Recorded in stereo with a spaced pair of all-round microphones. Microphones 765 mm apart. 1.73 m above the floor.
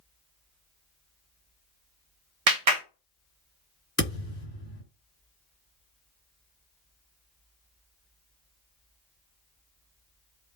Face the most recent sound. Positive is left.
turn(degrees=15)  # may be behind; listen again after turning